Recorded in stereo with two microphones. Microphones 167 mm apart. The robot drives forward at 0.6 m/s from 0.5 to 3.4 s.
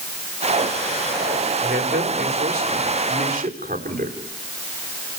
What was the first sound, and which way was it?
A man speaking, 75° right (ahead or behind).